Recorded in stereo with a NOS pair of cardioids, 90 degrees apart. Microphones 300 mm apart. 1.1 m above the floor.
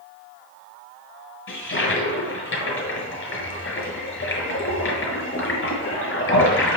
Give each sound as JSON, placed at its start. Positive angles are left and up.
{"t": 1.5, "sound": "a toilet flushing", "azimuth_deg": 45, "distance_m": 5.0}